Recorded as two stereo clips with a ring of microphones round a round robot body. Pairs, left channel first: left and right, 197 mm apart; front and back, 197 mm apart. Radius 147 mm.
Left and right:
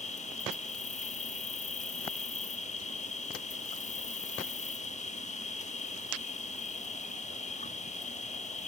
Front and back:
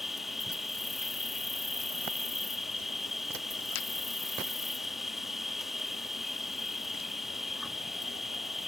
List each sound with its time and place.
0.0 s an insect: 90° left